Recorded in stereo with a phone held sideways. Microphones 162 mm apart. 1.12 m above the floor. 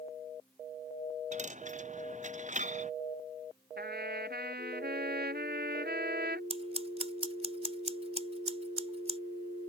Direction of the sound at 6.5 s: 40° right (ahead or behind).